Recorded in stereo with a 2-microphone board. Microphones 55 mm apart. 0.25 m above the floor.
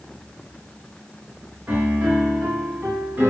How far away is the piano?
About 4 m.